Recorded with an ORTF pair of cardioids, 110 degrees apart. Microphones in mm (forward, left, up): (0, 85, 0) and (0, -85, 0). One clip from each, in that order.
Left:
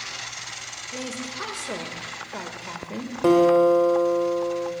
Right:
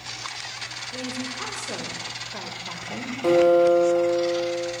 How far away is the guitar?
About 2 m.